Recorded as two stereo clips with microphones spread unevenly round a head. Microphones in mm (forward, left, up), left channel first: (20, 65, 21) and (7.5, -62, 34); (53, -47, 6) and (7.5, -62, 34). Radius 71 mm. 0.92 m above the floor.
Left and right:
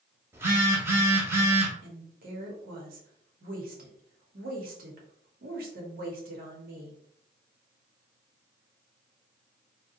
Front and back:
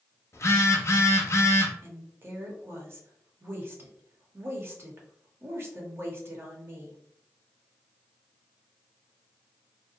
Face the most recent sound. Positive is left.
turn(degrees=-105)